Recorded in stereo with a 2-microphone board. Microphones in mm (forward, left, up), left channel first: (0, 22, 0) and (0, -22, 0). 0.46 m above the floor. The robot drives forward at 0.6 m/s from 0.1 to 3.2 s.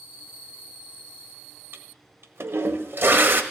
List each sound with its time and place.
1.7 s a toilet flushing: 65° right (ahead or behind), 0.9 m; by 3.4 s 55° right (ahead or behind), 1.0 m